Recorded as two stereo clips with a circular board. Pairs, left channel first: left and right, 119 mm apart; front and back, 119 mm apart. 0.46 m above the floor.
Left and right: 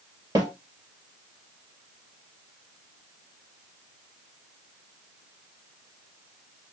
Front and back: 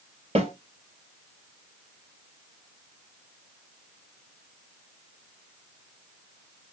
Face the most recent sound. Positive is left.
turn(degrees=-150)